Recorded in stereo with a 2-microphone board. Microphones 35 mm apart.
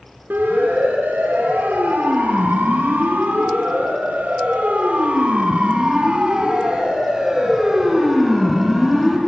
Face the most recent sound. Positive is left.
turn(degrees=0)  # may be behind; listen again after turning